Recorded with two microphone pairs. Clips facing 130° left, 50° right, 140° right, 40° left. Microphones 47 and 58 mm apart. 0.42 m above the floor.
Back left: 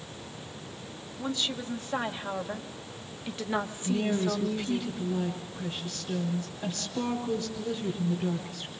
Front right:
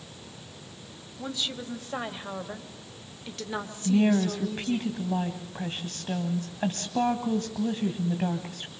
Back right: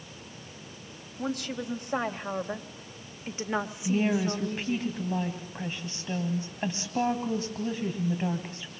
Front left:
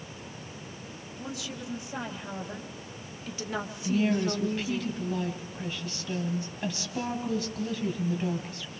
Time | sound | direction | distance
1.2 | a woman speaking | 135° right | 3 m
3.9 | a woman speaking | 85° right | 2.5 m